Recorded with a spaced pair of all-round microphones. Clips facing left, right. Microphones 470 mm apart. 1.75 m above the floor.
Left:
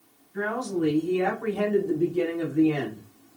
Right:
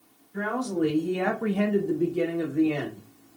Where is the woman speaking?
70° right (ahead or behind), 1.6 m; by 3.0 s 35° left (ahead or behind), 1.7 m.